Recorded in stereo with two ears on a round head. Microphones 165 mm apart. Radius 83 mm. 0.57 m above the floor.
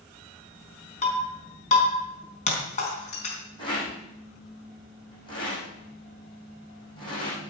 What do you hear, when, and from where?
1.0 s breaking glass: 40° left (ahead or behind), 4 m
3.6 s a rattle: 25° left (ahead or behind), 5.5 m